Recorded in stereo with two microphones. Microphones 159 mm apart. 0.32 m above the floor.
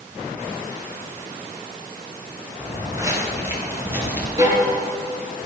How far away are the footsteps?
About 5 m.